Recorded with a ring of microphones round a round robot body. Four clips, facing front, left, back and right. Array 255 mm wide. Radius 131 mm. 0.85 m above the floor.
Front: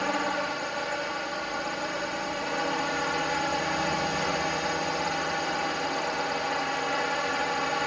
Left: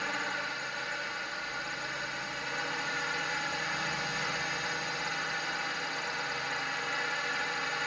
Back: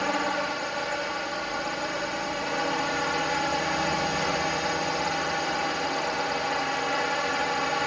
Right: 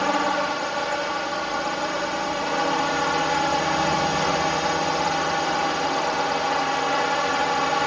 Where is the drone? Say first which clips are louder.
Right 14 dB, back 1 dB; 90° right.